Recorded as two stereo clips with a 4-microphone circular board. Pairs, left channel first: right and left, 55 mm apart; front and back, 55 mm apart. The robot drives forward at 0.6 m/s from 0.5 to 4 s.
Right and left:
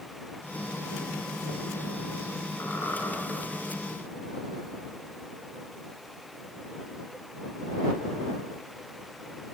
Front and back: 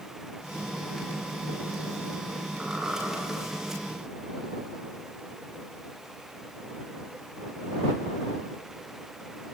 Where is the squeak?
115° right, 1.5 m; by 3.1 s 125° right, 1.7 m.